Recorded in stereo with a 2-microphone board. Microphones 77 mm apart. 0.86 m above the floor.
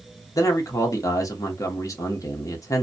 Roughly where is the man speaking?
Left.